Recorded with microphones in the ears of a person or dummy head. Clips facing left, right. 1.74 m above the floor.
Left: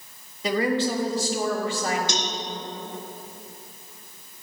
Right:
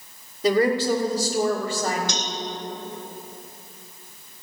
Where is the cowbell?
45° left (ahead or behind), 0.8 m.